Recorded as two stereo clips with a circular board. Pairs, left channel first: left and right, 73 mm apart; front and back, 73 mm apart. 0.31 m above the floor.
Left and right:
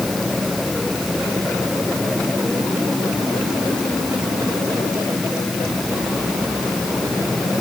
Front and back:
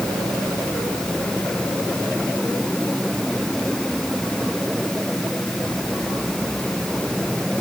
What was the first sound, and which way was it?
Only background noise.